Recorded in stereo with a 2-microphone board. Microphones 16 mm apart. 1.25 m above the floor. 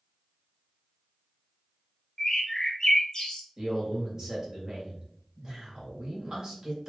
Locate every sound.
2.2 s a bird: 30° left (ahead or behind), 0.6 m
3.6 s a man speaking: 30° right (ahead or behind), 1.6 m